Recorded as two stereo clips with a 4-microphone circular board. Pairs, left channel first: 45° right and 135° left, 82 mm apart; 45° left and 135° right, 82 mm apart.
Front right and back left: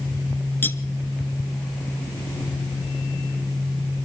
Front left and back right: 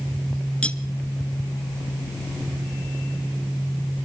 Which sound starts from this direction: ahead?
Cutlery clinking, at 0.6 s.